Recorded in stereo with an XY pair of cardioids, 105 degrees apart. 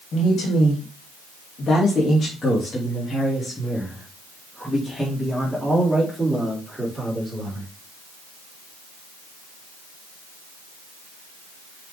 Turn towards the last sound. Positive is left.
turn(degrees=-10)